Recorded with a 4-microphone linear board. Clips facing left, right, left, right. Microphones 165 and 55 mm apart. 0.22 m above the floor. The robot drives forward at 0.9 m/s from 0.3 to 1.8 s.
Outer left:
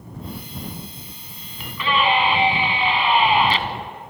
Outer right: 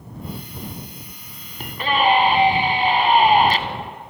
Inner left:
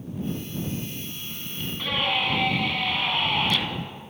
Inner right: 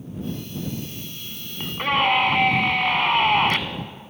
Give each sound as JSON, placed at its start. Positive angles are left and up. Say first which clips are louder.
{"t": 1.6, "sound": "a scream", "louder": "outer right 2 dB, inner right 7 dB", "side_deg": -45, "distance_m": 2.5}